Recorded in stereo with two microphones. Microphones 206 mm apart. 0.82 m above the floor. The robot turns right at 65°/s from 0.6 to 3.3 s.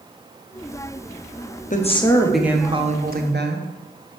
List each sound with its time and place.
1.7 s a woman speaking: 140° left, 0.8 m; by 3.7 s 120° right, 0.8 m